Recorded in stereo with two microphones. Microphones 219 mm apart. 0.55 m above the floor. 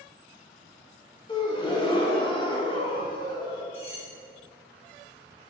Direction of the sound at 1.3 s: 20° left (ahead or behind).